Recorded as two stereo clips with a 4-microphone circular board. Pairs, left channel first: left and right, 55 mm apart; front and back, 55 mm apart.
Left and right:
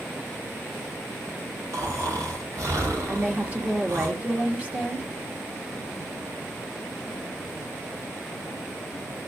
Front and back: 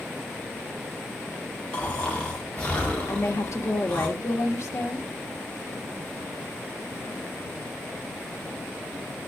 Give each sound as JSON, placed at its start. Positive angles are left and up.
{"t": 1.7, "sound": "snoring", "azimuth_deg": -70, "distance_m": 4.0}
{"t": 3.1, "sound": "a woman speaking", "azimuth_deg": -25, "distance_m": 2.0}